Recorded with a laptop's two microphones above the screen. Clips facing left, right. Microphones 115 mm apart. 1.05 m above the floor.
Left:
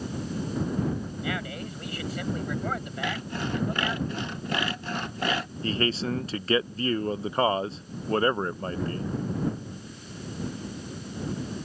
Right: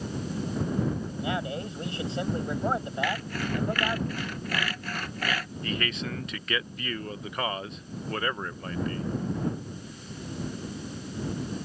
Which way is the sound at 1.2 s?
25° right (ahead or behind).